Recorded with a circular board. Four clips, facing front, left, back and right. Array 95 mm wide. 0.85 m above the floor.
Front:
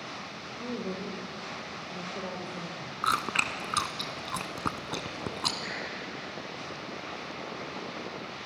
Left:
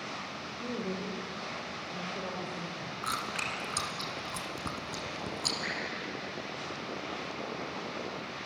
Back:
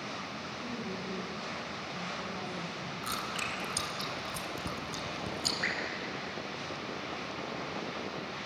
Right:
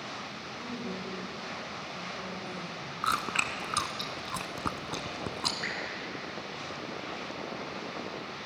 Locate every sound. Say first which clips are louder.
0.6 s a woman speaking: left 2 dB, front 6 dB; 30° left, 3.5 m
3.0 s chewing: right 6 dB, front 10 dB; 25° right, 1.6 m
5.6 s dripping: even, back 3 dB; 165° right, 7 m